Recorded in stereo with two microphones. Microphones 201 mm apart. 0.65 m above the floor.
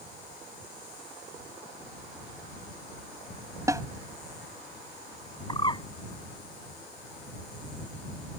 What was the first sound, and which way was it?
A snare drum, 15° right (ahead or behind).